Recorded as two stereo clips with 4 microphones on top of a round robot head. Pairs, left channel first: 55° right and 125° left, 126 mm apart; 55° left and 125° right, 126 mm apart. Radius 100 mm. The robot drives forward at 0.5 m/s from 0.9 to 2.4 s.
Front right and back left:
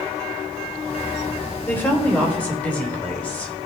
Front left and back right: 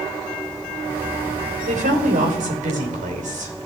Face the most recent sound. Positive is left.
turn(degrees=-130)